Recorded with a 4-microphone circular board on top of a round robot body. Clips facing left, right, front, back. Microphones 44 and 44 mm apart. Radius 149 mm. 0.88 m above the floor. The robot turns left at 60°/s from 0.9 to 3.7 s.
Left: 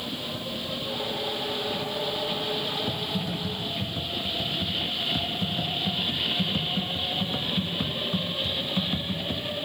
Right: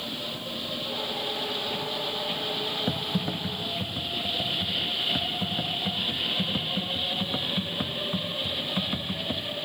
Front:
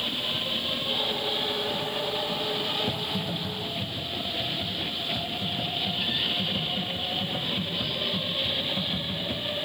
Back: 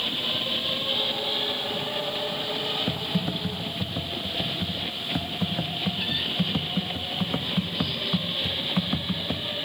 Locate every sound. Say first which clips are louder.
2.9 s typing on a keyboard: right 1 dB, back 2 dB; 115° right, 1.3 m; by 9.5 s 165° right, 1.3 m